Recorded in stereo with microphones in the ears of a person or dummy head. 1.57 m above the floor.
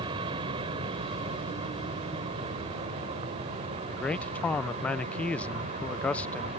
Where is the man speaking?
Centre (ahead or behind).